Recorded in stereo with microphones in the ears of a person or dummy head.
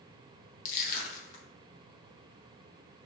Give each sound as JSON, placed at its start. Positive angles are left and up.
{"t": 0.7, "sound": "crushing", "side_deg": 40, "distance_m": 0.6}